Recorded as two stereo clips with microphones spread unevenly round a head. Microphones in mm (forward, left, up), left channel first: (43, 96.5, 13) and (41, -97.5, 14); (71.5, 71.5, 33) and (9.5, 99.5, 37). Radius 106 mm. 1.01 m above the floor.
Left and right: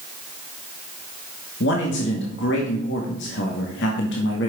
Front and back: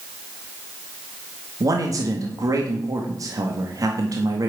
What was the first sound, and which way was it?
A man speaking, 125° left.